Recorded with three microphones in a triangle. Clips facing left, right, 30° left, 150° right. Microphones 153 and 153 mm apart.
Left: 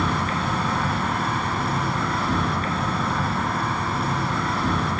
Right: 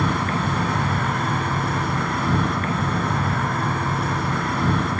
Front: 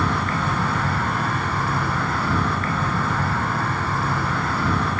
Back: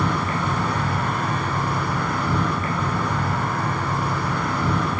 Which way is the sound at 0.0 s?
80° right.